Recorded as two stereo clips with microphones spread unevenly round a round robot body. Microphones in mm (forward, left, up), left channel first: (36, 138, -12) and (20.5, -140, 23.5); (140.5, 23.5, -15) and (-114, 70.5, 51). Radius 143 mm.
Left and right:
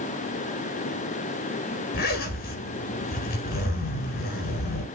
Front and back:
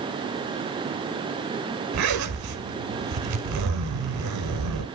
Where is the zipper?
145° left, 1.1 m.